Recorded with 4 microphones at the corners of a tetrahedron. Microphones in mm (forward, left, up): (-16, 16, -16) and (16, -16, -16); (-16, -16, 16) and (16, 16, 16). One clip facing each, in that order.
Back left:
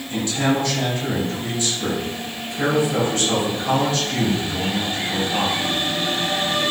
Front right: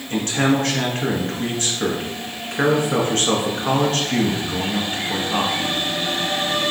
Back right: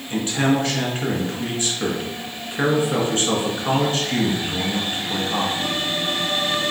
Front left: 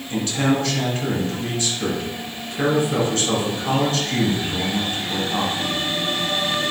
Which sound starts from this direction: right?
A man speaking, at 0.1 s.